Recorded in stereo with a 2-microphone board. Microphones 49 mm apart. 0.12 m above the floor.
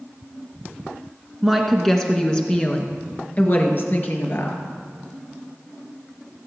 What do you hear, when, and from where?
1.4 s a woman speaking: centre (ahead or behind), 1.4 m; by 4.6 s 55° left (ahead or behind), 2 m